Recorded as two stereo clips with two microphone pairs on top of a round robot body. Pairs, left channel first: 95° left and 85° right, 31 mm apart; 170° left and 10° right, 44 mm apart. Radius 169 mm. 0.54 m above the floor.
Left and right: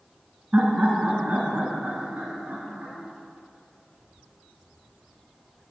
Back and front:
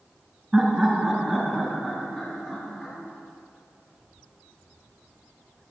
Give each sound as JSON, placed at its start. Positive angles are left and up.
{"t": 0.5, "sound": "laughter", "azimuth_deg": -85, "distance_m": 1.6}